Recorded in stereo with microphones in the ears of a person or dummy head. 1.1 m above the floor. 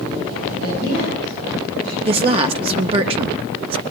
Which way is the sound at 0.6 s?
70° right (ahead or behind).